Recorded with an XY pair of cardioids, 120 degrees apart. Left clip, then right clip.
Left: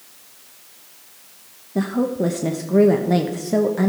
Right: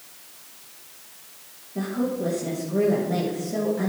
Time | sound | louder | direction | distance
1.8 | a woman speaking | left 5 dB | 60° left | 1.1 m